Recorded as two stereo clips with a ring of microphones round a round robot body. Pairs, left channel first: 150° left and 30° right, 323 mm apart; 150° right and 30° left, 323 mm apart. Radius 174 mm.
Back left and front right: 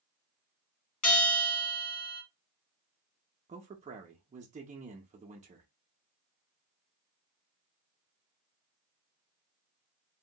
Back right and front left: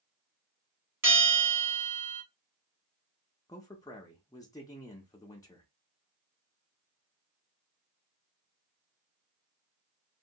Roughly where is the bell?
Left.